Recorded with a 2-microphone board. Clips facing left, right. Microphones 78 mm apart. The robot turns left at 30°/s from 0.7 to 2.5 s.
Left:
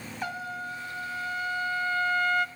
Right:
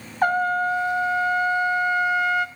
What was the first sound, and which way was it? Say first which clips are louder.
A trumpet: right 15 dB; 125° right.